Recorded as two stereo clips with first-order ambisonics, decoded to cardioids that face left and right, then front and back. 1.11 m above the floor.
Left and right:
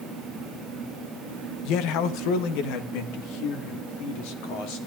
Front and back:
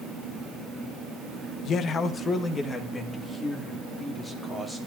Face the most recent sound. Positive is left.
turn(degrees=90)